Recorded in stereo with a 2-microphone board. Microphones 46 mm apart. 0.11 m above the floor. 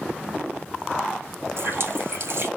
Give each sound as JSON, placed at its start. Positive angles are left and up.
{"t": 1.6, "sound": "a running tap", "side_deg": -55, "distance_m": 2.0}